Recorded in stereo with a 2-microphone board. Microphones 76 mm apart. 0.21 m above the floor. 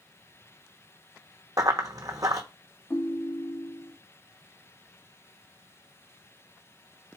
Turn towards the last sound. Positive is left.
turn(degrees=30)  # may be behind; listen again after turning